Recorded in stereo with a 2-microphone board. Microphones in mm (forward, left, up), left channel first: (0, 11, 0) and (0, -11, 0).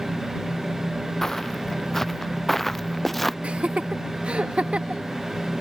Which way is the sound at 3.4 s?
60° right (ahead or behind).